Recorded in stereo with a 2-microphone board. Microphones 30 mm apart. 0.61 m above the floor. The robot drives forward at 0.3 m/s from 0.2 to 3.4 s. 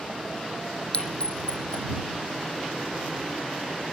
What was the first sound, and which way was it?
A clink, 35° left (ahead or behind).